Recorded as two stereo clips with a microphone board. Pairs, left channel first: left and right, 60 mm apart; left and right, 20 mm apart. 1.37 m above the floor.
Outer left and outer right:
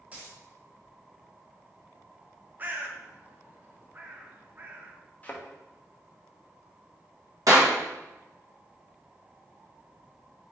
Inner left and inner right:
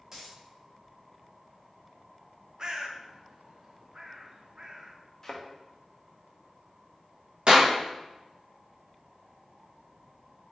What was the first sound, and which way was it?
A dropped coin, 25° right (ahead or behind).